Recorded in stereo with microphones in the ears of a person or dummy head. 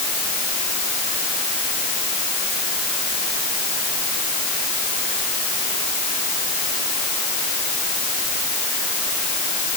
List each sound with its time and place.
Only background noise.